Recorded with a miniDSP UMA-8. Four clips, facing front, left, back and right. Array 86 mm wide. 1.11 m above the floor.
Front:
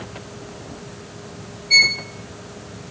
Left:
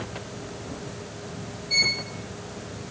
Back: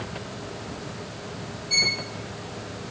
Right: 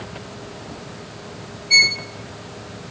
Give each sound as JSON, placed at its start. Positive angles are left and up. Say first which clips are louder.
{"t": 1.7, "sound": "a violin", "louder": "right 9 dB, front 9 dB", "azimuth_deg": -40, "distance_m": 1.2}